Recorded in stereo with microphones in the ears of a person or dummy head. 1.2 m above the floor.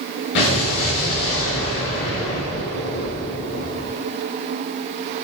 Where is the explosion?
65° left (ahead or behind), 7 m.